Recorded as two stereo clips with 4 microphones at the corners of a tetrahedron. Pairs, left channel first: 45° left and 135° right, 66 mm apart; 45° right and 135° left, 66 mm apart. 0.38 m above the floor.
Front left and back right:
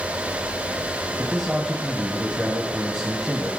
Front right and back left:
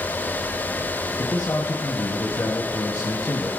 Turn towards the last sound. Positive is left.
turn(degrees=-45)